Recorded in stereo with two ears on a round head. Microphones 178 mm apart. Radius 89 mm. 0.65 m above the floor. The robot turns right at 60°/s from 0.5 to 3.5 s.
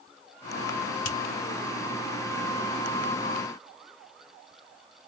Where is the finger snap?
65° left (ahead or behind), 2 m; by 1.2 s 55° left (ahead or behind), 2 m.